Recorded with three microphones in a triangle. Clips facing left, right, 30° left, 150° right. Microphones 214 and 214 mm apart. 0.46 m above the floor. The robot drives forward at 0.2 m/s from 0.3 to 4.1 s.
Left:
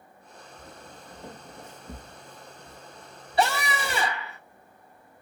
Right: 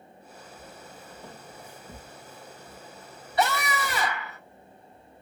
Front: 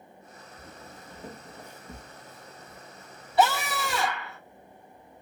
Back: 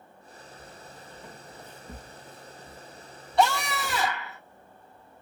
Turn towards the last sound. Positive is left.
turn(degrees=125)